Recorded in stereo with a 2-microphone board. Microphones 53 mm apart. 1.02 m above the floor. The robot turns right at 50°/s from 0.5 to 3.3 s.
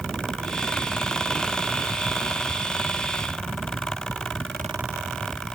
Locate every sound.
Only background noise.